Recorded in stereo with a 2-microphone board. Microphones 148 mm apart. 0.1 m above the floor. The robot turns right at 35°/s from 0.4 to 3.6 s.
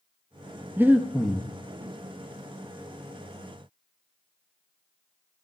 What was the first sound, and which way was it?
Breathing, 15° right (ahead or behind).